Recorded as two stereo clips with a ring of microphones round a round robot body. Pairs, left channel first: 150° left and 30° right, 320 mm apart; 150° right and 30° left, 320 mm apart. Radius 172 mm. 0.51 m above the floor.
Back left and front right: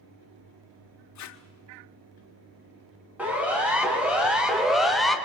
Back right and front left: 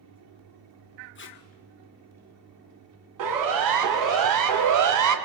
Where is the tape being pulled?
165° left, 1.9 m.